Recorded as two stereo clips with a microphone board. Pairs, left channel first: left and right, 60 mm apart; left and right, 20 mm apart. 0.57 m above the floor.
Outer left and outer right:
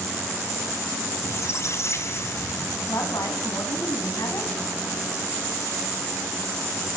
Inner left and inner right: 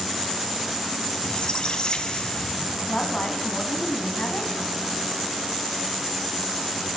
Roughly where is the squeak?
Left.